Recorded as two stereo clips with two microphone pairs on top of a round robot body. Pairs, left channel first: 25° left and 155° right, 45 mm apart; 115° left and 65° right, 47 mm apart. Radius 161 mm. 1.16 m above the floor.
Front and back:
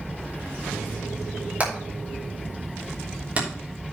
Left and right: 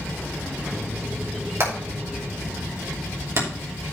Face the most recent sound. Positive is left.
turn(degrees=-100)